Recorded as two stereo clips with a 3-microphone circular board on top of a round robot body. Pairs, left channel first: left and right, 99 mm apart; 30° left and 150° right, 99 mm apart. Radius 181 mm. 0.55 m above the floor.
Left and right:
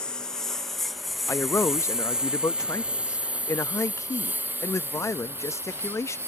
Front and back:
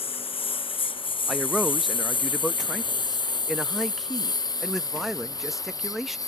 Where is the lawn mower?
5° left; by 6.3 s 25° right.